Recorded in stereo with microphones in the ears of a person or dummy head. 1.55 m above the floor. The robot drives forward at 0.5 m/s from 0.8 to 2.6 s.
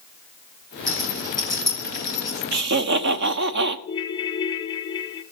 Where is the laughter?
60° right (ahead or behind), 1.0 m; by 3.8 s 55° right (ahead or behind), 1.0 m.